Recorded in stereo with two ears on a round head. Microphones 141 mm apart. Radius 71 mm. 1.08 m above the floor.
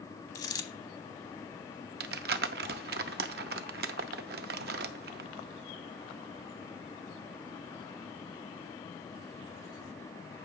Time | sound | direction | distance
0.3 | a dropped coin | 25° left (ahead or behind) | 1.0 m
2.0 | crumpling | 70° right (ahead or behind) | 0.7 m